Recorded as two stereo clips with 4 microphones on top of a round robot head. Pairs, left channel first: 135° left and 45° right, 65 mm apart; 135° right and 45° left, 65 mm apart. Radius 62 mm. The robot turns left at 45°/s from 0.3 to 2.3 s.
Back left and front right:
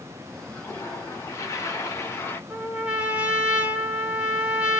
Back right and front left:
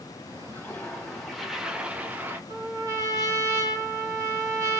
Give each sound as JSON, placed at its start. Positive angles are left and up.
{"t": 0.5, "sound": "a toilet flushing", "azimuth_deg": 180, "distance_m": 1.3}
{"t": 2.5, "sound": "a trumpet", "azimuth_deg": 25, "distance_m": 1.7}